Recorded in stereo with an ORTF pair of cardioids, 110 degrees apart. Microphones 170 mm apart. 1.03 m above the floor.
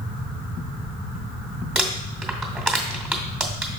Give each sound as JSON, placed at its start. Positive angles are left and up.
{"t": 1.8, "sound": "crumpling", "azimuth_deg": -5, "distance_m": 2.0}